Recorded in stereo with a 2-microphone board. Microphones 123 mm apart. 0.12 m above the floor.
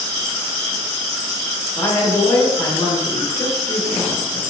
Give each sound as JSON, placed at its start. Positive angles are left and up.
{"t": 1.8, "sound": "a woman speaking", "side_deg": 25, "distance_m": 1.2}